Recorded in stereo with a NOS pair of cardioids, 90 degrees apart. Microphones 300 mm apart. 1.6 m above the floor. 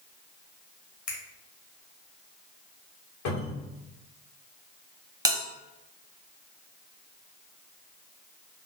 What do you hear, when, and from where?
1.1 s a finger snap: 70° left, 1.3 m
3.2 s a cupboard door: 70° left, 1.1 m
5.2 s a bell: 10° right, 0.7 m